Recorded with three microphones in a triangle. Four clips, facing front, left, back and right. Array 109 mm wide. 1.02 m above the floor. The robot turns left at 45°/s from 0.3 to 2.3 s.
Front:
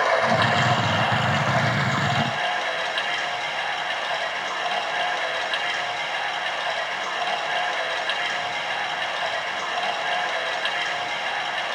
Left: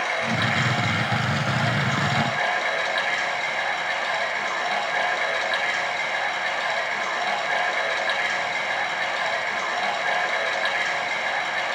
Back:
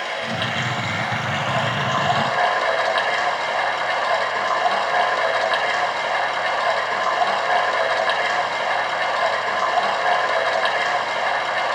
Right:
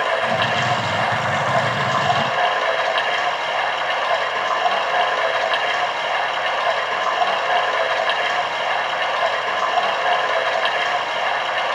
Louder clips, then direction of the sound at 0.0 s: Right 6 dB, front 6 dB; 40° right.